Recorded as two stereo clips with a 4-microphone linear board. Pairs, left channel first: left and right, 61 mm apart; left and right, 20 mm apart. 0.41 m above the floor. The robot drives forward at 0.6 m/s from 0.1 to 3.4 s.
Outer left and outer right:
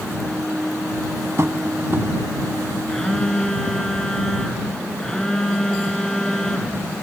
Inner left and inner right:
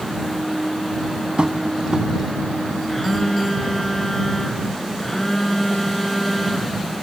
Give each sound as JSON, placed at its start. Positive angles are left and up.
{"t": 1.4, "sound": "tapping", "side_deg": -50, "distance_m": 1.8}
{"t": 2.9, "sound": "a phone buzzing", "side_deg": 10, "distance_m": 5.0}